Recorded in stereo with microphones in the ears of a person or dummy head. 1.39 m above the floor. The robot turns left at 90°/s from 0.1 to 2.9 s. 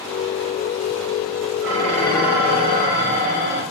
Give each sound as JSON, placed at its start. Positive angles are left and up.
{"t": 1.6, "sound": "dishes clattering", "azimuth_deg": 0, "distance_m": 4.5}